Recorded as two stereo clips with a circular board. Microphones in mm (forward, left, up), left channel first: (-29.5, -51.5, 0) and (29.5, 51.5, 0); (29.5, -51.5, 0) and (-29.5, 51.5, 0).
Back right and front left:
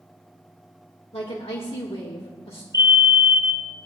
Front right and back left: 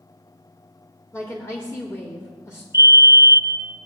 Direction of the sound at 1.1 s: 120° right.